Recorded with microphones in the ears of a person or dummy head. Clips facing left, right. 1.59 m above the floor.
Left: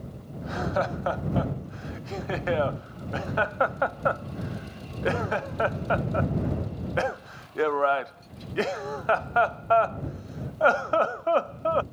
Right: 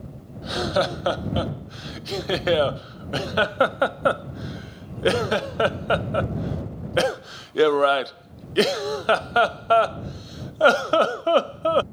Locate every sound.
0.4 s laughter: 45° right (ahead or behind)